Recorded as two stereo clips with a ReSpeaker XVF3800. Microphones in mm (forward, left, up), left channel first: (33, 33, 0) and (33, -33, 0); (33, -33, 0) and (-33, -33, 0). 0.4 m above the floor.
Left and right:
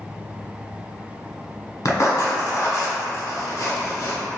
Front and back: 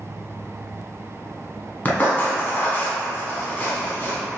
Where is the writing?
60° left, 0.7 m.